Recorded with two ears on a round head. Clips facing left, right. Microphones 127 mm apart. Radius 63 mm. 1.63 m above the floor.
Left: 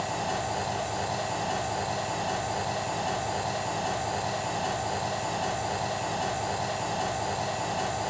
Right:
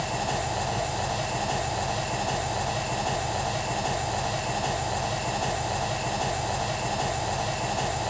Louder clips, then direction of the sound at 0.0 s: Right 1 dB; 45° right (ahead or behind).